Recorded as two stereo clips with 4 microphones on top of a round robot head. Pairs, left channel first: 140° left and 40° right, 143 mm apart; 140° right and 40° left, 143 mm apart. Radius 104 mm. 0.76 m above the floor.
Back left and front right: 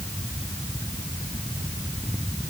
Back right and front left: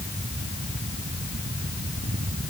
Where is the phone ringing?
I don't hear a phone ringing.